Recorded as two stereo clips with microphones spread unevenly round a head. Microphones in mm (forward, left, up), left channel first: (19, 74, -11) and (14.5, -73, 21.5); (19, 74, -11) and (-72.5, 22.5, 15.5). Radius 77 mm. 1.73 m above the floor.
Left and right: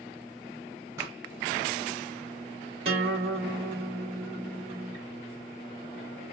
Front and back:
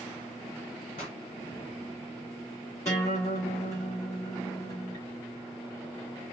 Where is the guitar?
45° right, 3 m.